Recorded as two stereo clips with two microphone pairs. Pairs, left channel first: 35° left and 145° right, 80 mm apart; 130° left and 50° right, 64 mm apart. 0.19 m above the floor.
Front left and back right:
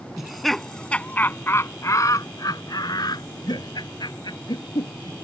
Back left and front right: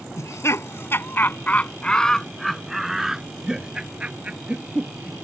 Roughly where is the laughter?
Behind left.